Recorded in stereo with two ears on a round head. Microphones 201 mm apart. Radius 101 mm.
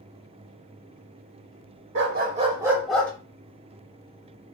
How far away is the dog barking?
About 0.7 m.